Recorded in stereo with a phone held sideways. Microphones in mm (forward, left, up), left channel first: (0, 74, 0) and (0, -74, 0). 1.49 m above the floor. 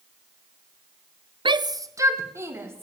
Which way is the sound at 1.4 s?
35° right (ahead or behind).